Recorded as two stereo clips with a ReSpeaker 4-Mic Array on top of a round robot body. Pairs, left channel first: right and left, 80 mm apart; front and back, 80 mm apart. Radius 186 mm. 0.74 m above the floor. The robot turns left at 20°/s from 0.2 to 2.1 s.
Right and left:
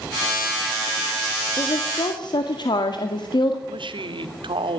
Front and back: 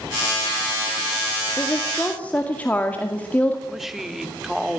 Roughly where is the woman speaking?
Ahead right.